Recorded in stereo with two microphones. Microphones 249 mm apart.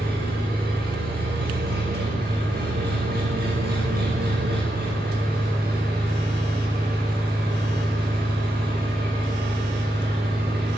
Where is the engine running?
40° right (ahead or behind), 7 m.